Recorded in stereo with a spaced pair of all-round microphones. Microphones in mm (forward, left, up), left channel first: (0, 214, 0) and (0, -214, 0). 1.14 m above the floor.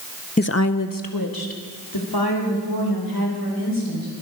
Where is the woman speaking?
20° left (ahead or behind), 0.5 m; by 4.1 s 65° left (ahead or behind), 6 m.